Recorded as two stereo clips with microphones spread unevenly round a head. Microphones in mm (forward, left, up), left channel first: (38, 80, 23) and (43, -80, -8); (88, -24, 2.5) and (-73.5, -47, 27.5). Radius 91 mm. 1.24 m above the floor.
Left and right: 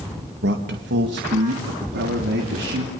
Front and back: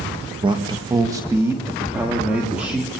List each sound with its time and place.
0.4 s a man speaking: 110° right, 1.7 m; by 2.9 s 85° right, 4 m